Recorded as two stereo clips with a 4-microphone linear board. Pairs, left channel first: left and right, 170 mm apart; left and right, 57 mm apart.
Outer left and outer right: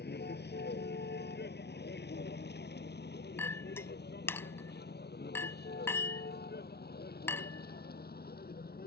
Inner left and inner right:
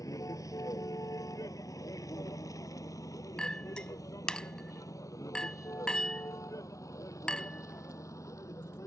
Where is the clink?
15° left (ahead or behind).